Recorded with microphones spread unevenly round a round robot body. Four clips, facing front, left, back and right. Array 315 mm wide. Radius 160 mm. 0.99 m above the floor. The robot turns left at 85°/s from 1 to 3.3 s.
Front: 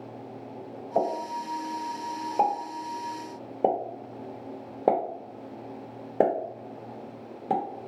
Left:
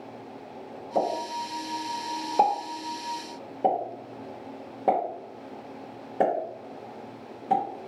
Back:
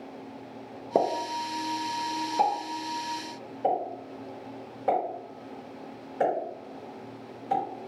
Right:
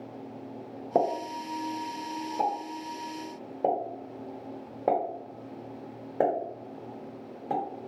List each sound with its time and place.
0.9 s a pop: 155° right, 1.0 m; by 7.6 s 10° left, 1.0 m